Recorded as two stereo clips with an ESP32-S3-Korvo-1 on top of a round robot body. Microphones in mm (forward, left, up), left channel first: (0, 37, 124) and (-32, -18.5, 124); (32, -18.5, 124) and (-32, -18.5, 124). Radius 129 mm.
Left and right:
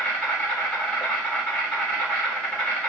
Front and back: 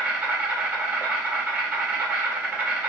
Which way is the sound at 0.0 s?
125° left.